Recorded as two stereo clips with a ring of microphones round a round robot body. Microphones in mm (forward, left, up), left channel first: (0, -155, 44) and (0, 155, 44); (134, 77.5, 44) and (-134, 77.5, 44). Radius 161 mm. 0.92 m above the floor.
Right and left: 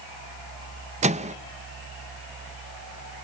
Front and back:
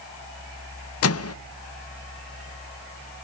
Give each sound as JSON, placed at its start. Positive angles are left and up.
{"t": 1.0, "sound": "a microwave", "azimuth_deg": 25, "distance_m": 0.6}